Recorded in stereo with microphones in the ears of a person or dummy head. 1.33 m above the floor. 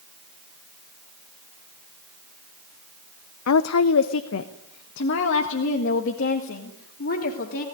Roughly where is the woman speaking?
Left.